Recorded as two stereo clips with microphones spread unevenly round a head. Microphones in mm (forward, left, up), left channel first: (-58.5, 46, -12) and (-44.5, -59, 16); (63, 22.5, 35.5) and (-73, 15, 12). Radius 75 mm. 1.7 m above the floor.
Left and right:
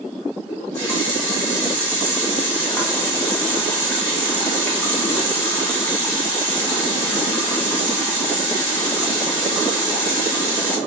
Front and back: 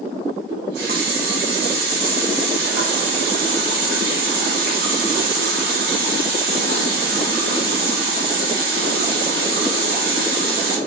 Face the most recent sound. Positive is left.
turn(degrees=-175)